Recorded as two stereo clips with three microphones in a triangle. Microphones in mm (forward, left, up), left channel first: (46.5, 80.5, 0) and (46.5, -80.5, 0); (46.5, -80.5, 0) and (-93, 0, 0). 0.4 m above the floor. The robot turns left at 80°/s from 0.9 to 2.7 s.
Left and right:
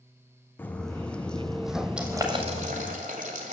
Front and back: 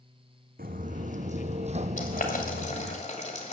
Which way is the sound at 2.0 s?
5° right.